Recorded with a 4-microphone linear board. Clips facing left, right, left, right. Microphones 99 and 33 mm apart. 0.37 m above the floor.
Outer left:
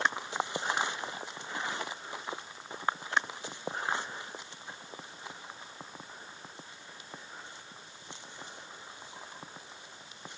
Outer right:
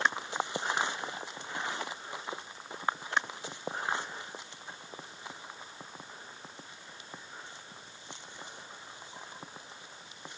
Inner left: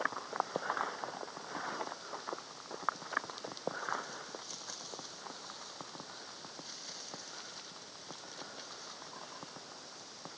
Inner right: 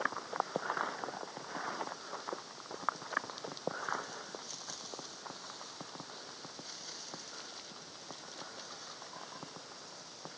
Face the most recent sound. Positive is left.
No sound to turn to.